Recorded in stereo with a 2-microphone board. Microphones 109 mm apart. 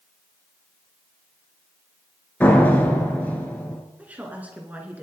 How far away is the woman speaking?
About 2.5 m.